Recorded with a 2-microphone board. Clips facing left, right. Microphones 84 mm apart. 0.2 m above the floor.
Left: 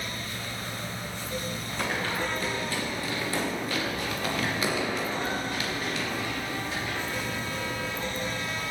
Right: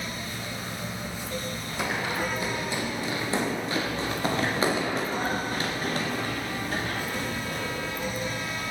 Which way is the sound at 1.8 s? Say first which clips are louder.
Right 1 dB; 10° right (ahead or behind).